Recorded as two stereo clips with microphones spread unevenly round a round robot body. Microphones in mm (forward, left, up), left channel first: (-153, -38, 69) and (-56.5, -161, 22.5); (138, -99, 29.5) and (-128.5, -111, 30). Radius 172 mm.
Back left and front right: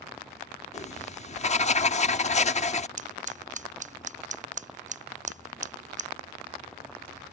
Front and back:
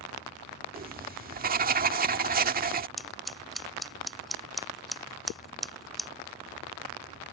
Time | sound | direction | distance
0.7 | writing | 165° left | ?
3.0 | scissors | 85° right | ?